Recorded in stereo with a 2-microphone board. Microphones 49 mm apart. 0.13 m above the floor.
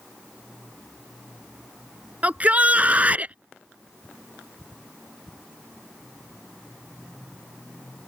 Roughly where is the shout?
Right.